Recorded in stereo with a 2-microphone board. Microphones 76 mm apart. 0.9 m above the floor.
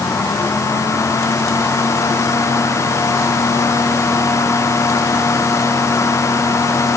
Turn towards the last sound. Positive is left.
No sound to turn to.